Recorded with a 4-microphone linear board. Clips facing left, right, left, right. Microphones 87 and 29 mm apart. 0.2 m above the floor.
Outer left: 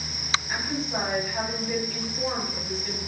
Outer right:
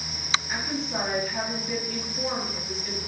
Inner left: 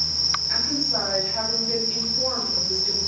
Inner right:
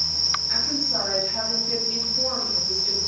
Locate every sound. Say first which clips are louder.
0.5 s a woman speaking: outer left 1 dB, inner left 1 dB; centre (ahead or behind), 1.3 m